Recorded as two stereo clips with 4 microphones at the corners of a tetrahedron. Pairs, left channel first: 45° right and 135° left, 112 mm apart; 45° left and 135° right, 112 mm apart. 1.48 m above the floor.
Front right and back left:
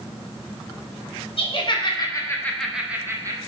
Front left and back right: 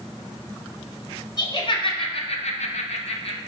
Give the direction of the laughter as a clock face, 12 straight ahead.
12 o'clock.